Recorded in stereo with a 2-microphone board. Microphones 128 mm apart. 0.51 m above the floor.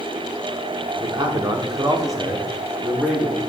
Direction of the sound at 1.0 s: 35° right (ahead or behind).